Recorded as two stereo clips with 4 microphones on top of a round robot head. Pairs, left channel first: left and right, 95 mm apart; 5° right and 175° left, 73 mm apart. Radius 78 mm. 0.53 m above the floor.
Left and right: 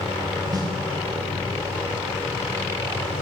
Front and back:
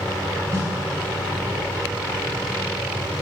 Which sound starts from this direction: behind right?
A snare drum, at 0.5 s.